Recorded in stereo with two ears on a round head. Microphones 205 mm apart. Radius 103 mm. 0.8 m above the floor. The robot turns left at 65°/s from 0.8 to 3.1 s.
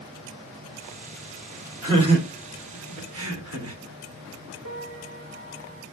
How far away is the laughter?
About 1.7 m.